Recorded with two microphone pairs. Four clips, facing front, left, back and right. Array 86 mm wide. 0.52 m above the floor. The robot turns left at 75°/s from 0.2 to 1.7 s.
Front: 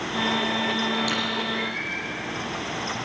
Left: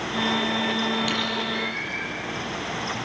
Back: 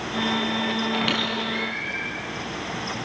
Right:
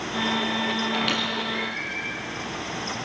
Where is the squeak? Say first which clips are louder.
Even, back 1 dB; 145° right, 6.5 m; by 2.0 s 160° left, 6.5 m.